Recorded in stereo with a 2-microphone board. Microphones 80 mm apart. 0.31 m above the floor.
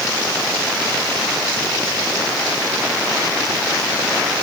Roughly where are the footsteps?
I don't hear footsteps.